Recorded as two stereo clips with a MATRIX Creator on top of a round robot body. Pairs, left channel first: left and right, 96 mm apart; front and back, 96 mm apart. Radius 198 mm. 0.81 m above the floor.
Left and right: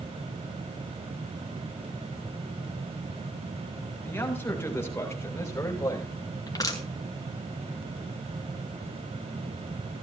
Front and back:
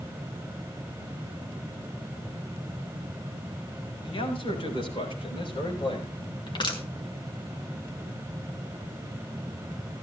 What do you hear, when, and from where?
4.0 s a man speaking: 20° left, 7 m; by 6.2 s 35° left, 6 m
6.5 s crushing: 40° left, 3.5 m